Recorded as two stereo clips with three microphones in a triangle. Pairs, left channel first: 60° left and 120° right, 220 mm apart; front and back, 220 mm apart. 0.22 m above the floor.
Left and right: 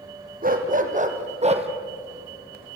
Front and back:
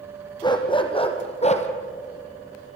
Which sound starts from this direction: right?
A dog barking, at 0.4 s.